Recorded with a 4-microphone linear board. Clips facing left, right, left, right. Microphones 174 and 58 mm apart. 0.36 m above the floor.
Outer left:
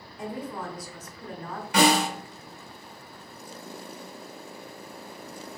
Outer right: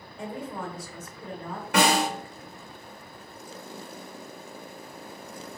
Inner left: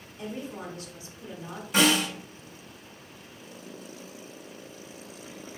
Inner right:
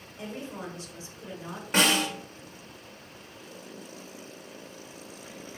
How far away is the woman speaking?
About 1.3 m.